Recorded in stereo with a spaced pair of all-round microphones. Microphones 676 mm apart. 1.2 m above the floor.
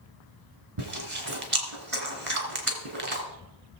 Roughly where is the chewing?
Right.